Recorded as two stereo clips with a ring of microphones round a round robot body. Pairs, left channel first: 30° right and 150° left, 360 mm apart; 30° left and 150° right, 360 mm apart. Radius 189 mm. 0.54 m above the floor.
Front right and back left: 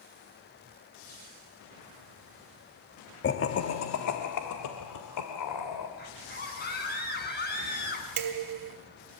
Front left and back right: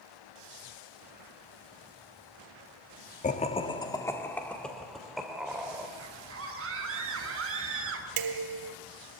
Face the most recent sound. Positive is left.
turn(degrees=-175)